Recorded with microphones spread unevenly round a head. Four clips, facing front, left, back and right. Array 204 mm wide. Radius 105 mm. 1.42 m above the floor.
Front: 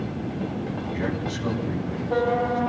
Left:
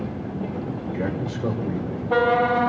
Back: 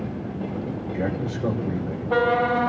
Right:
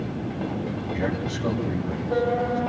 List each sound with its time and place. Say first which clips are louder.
0.9 s a man speaking: left 1 dB, back 3 dB; 145° left, 7 m